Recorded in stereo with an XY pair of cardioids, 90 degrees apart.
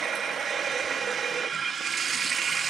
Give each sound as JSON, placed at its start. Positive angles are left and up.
{"t": 0.0, "sound": "running water", "azimuth_deg": -70, "distance_m": 0.9}